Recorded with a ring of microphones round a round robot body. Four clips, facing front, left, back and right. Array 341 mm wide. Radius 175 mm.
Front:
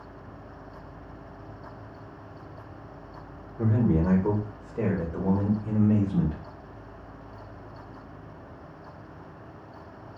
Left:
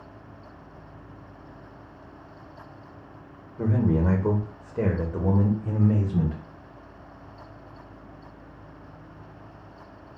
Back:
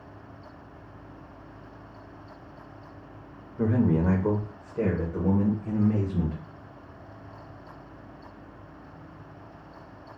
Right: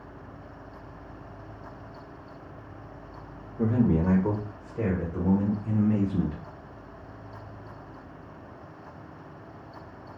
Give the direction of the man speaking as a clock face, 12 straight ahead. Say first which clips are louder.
Even, back 1 dB; 6 o'clock.